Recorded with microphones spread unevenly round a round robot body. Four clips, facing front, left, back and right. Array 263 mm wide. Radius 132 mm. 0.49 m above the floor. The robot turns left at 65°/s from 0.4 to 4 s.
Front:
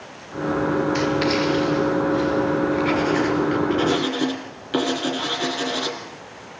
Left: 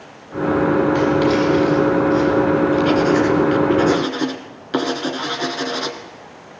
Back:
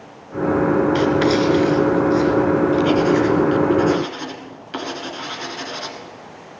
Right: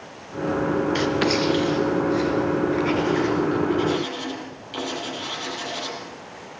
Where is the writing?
95° right, 2.5 m; by 6.0 s 65° left, 2.5 m.